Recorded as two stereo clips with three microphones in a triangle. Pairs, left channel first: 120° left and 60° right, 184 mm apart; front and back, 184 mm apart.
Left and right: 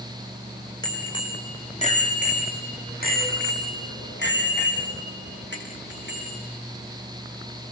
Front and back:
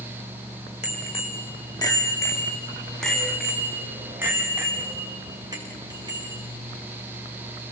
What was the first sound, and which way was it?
A bicycle bell, 50° left.